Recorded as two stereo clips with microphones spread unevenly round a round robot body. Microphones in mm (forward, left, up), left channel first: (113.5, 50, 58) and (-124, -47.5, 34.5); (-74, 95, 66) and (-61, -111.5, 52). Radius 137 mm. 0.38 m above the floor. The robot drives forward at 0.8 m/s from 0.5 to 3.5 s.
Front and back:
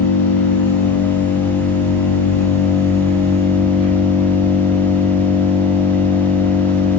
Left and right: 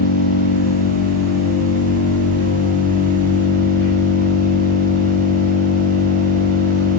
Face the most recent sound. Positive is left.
turn(degrees=95)